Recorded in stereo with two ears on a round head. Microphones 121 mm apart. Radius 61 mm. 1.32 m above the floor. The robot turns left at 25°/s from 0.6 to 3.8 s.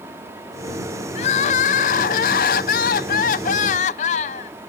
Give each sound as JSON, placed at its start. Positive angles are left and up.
{"t": 1.1, "sound": "crying", "azimuth_deg": 125}